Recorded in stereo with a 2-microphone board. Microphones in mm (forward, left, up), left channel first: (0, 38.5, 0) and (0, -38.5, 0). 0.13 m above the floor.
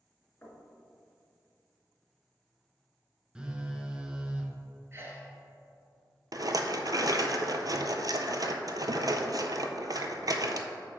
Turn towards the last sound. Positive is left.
turn(degrees=-55)  # may be behind; listen again after turning